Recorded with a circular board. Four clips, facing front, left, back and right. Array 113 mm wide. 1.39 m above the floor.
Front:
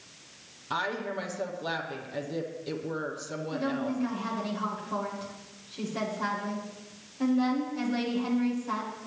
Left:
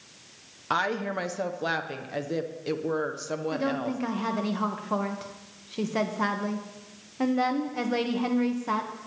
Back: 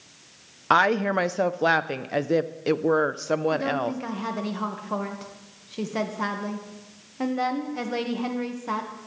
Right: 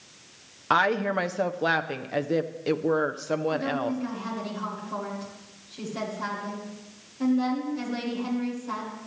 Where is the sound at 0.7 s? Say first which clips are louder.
Right 5 dB, back 11 dB; 165° right, 0.6 m.